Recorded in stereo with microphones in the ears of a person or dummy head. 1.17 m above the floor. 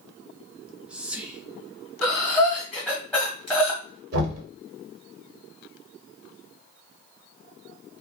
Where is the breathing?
5° left (ahead or behind), 1.4 m.